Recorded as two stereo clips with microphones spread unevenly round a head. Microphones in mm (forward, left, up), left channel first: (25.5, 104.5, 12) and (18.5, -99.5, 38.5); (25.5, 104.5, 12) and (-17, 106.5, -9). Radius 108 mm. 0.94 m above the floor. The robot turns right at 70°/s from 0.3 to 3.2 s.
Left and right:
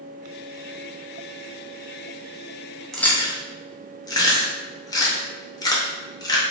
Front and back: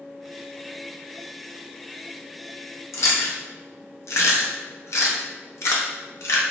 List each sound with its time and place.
2.9 s chewing: straight ahead, 0.8 m; by 6.4 s 20° left, 0.8 m